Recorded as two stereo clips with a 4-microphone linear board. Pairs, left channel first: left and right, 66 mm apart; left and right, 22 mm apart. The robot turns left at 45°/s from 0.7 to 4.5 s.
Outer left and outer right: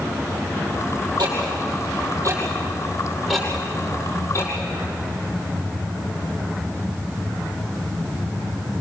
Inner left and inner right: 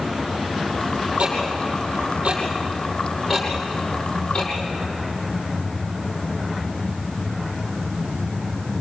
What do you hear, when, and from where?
1.2 s ticking: 85° right, 9 m; by 4.5 s 50° left (ahead or behind), 9 m